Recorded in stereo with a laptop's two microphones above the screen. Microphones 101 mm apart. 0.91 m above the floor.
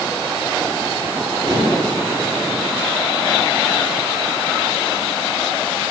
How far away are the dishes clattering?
About 7.5 m.